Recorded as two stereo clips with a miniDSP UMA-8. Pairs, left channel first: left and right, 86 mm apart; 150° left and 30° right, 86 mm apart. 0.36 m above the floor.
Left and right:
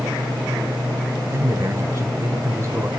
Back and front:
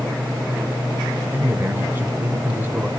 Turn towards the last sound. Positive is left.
turn(degrees=-75)